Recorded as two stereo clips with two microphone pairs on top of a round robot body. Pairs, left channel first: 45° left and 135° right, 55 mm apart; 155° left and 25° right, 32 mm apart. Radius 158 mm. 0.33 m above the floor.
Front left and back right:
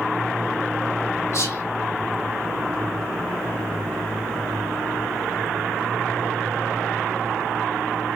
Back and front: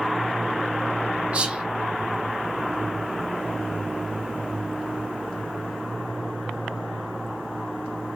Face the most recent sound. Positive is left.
turn(degrees=10)